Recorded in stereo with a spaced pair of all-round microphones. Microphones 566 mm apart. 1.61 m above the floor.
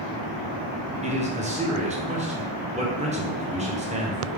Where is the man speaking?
10° right (ahead or behind), 0.8 m.